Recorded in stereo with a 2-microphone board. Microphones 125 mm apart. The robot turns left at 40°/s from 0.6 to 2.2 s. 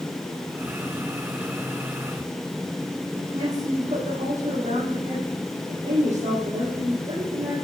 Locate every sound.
3.1 s a woman speaking: 75° right (ahead or behind), 5 m